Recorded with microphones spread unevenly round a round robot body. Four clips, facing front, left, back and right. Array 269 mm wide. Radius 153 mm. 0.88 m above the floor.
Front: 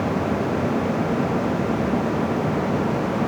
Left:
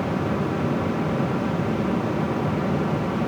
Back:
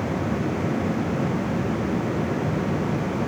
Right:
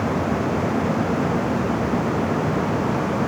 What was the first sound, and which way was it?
Only background noise.